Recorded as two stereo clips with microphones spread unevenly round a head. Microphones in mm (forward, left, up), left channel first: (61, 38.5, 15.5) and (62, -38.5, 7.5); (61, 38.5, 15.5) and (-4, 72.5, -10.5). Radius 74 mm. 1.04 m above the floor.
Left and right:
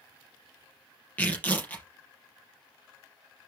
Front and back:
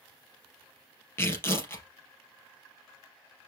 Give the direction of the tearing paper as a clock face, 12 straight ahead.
11 o'clock.